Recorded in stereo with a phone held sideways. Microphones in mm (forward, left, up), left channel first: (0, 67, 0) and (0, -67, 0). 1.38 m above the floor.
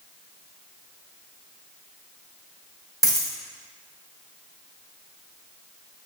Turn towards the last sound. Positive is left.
turn(degrees=-25)  # may be behind; listen again after turning